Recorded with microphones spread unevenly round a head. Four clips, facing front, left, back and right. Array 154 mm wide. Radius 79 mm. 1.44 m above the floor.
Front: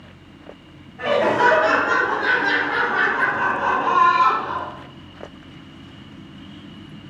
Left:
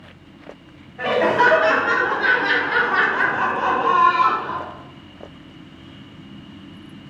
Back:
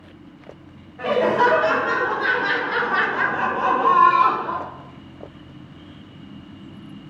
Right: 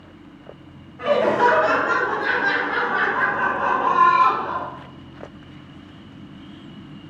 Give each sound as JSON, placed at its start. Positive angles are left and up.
{"t": 1.0, "sound": "laughter", "azimuth_deg": 80, "distance_m": 1.8}